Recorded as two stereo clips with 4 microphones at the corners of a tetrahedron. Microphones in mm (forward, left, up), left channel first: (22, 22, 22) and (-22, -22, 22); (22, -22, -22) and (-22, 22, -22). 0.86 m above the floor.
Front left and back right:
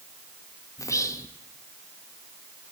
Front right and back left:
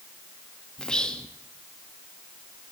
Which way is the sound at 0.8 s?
30° left.